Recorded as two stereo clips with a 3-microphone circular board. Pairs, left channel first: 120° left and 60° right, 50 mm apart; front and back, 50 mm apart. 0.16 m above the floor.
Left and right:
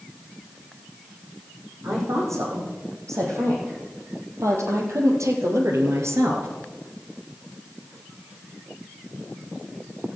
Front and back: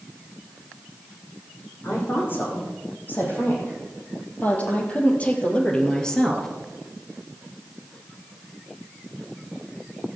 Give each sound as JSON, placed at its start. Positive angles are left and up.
{"t": 1.8, "sound": "a woman speaking", "azimuth_deg": -45, "distance_m": 8.0}